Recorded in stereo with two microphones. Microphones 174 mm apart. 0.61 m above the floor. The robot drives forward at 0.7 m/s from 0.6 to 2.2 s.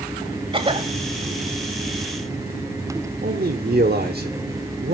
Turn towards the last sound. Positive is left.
turn(degrees=-60)  # may be behind; listen again after turning